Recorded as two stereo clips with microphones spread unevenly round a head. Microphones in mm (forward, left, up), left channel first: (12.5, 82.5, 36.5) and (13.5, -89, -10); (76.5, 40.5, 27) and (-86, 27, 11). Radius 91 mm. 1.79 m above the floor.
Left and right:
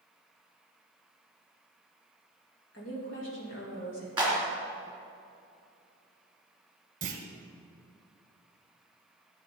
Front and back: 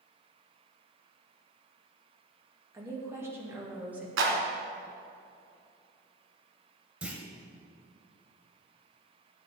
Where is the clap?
175° right, 3 m.